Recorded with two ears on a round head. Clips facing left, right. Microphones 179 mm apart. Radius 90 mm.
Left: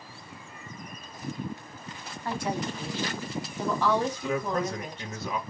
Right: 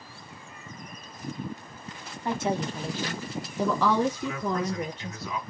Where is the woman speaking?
15° right (ahead or behind), 0.9 m; by 5.2 s 60° right (ahead or behind), 1.3 m.